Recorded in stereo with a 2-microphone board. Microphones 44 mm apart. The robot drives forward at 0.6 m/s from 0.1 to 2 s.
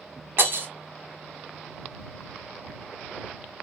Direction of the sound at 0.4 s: 55° right (ahead or behind).